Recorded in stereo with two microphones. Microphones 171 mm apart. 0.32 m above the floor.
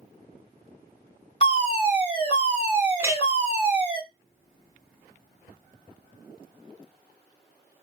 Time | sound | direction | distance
1.4 | a fire alarm | 35° left (ahead or behind) | 3 m
3.0 | a clink | 15° right (ahead or behind) | 0.5 m